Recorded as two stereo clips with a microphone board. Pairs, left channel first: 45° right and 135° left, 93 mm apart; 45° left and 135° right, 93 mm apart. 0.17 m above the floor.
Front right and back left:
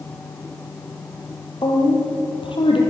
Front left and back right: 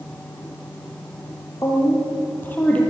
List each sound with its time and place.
1.6 s a woman speaking: 10° right, 5.5 m; by 2.8 s 30° right, 5.5 m